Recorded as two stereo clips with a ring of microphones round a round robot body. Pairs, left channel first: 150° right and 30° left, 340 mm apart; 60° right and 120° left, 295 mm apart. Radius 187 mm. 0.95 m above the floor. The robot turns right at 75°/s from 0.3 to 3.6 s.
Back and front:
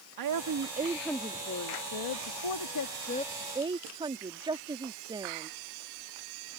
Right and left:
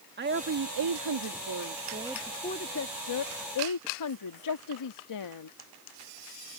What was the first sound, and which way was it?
A woman speaking, 65° left.